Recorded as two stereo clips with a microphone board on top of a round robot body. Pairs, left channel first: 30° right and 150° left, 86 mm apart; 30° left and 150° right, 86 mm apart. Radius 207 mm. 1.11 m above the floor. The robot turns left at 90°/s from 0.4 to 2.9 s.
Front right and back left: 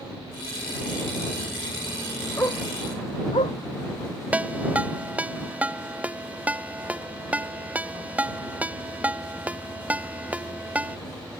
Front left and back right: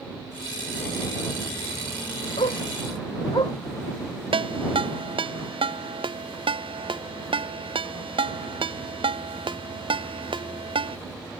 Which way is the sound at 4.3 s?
135° right.